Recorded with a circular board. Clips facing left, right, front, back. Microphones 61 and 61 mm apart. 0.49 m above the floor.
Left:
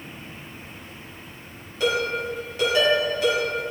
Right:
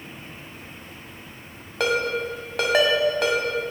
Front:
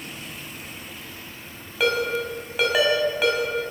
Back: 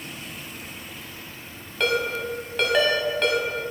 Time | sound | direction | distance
1.8 | a ringtone | 85° right | 1.2 m